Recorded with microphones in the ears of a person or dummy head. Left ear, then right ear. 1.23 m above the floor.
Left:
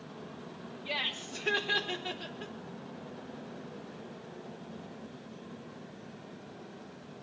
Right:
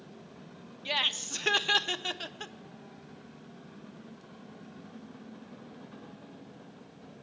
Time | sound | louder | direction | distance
0.8 | laughter | right 5 dB | 75° right (ahead or behind) | 0.8 m